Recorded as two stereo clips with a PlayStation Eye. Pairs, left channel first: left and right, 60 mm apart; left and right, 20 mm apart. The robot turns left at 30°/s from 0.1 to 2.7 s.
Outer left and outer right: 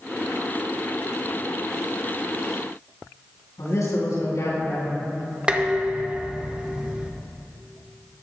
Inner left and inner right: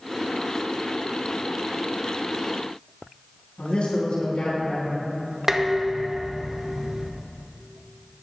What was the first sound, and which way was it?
A man speaking, 75° left (ahead or behind).